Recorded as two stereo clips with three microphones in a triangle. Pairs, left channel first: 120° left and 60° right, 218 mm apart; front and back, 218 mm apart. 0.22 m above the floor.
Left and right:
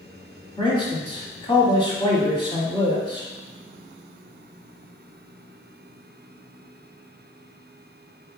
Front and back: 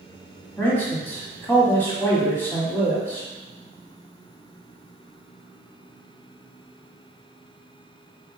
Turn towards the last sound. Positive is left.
turn(degrees=75)